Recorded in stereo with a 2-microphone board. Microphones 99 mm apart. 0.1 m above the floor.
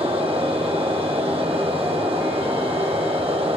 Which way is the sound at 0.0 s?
70° right (ahead or behind).